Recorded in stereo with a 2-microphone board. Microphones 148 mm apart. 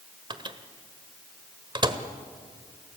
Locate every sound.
0.3 s a microwave: 35° right (ahead or behind), 1.4 m